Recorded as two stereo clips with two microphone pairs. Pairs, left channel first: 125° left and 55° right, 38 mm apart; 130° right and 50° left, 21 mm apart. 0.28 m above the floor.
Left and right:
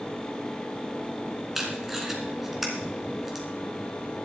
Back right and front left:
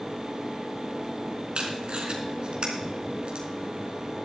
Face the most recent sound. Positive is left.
turn(degrees=25)